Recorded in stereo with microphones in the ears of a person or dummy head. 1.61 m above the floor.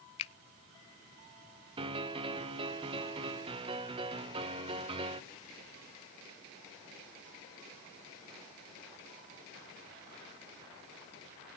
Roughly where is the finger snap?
Left.